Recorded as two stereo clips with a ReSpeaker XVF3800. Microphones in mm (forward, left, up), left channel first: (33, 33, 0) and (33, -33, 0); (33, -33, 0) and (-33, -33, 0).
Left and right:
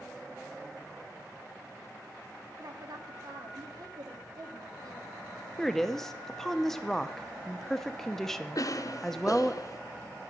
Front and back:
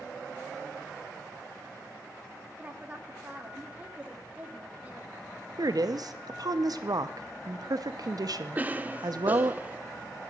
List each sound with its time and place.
2.6 s a woman speaking: 110° right, 1.9 m
5.6 s a woman speaking: 175° left, 0.6 m
8.6 s a cough: 115° left, 0.7 m